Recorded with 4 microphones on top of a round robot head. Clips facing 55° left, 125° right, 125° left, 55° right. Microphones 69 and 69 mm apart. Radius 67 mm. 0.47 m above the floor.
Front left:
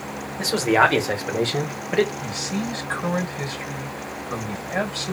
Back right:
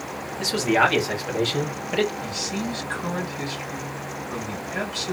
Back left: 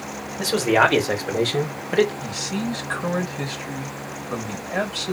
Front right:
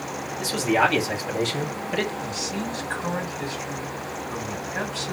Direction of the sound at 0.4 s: 105° left.